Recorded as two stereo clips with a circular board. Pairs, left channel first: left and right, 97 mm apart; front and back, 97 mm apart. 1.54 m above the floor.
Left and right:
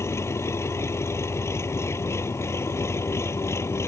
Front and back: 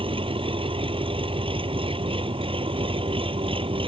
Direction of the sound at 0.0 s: 155° left.